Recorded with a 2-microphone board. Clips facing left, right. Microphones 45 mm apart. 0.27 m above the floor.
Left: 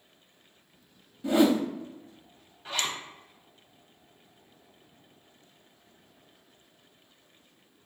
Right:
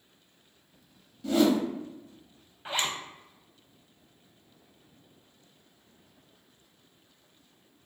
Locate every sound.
1.2 s a whoosh: 25° left (ahead or behind), 0.5 m
2.6 s a zipper: 25° right (ahead or behind), 0.6 m